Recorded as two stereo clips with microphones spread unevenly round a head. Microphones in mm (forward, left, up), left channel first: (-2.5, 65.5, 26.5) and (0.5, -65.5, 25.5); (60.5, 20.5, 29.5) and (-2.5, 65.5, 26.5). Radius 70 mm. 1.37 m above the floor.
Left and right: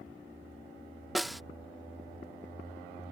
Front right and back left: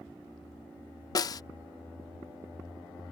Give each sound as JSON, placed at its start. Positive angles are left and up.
{"t": 1.1, "sound": "a snare drum", "azimuth_deg": 0}